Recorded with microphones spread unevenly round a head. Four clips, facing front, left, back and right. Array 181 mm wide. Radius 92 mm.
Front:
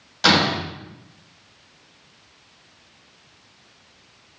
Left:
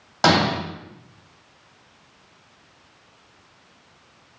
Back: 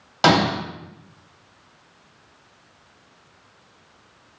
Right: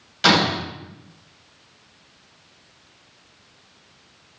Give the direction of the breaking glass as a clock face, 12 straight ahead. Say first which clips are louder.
Left 1 dB, back 2 dB; 7 o'clock.